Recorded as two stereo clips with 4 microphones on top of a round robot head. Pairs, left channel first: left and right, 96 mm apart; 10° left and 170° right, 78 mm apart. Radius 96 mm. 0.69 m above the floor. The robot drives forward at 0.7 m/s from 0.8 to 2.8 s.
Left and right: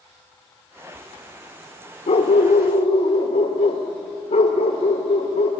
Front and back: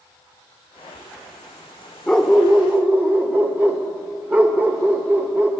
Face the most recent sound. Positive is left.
turn(degrees=120)